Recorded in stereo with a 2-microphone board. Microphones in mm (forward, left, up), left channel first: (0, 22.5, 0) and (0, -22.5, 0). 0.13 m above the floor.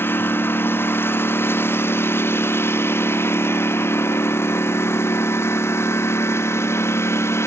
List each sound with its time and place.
0.0 s a lawn mower: 50° left (ahead or behind); by 7.5 s 70° left (ahead or behind)